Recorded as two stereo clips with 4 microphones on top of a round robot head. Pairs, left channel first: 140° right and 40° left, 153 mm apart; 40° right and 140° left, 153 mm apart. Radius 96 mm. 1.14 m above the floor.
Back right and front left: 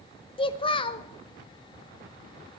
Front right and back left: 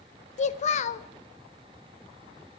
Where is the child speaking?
85° right, 0.8 m.